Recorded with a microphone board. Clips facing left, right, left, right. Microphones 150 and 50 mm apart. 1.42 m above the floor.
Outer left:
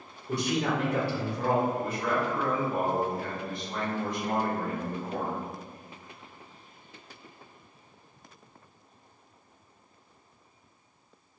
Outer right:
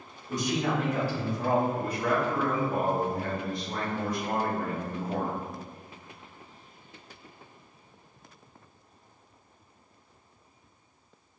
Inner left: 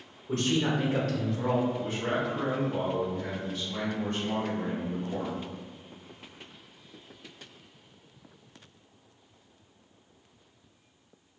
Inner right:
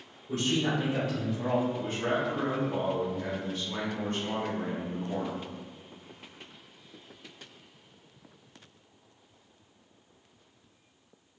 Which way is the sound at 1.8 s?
35° right (ahead or behind).